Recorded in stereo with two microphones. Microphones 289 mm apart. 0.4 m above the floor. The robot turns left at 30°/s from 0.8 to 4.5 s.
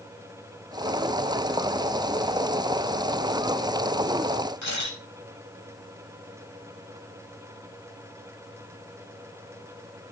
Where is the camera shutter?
75° left (ahead or behind), 7 m.